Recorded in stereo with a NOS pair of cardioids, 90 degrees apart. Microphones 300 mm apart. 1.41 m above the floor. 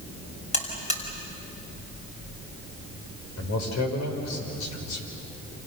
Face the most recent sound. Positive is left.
turn(degrees=65)